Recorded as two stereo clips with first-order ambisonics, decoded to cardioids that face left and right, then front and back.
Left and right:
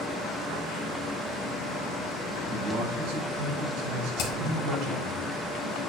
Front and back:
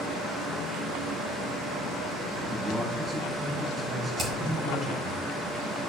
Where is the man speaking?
110° right, 5.5 m.